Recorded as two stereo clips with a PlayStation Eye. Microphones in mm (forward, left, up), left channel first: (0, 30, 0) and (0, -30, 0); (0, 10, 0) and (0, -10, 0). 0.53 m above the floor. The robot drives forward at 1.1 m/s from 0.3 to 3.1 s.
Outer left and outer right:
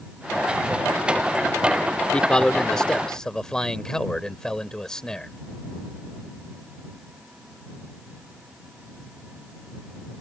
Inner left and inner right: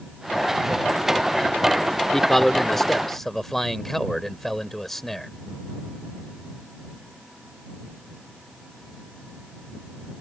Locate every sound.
2.1 s a man speaking: 15° left (ahead or behind); by 5.3 s 10° left (ahead or behind)